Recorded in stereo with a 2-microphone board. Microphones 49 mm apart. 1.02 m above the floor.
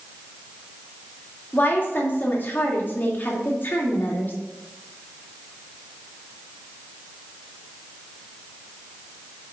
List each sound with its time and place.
1.5 s a woman speaking: 45° left (ahead or behind), 2 m